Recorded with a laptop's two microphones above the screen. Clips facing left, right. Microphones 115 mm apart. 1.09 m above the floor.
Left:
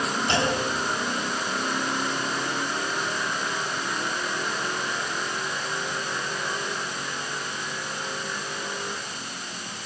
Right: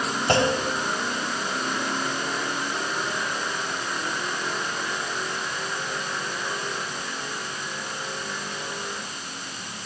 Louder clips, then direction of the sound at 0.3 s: Right 5 dB; 55° right (ahead or behind).